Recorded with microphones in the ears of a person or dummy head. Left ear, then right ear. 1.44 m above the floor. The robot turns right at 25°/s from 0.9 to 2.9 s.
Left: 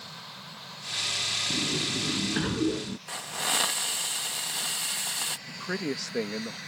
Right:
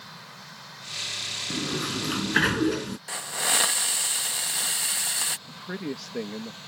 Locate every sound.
1.5 s a sliding door: 150° right; by 3.0 s 115° right
3.1 s a hiss: 10° right (ahead or behind)
5.5 s a man speaking: 20° left (ahead or behind)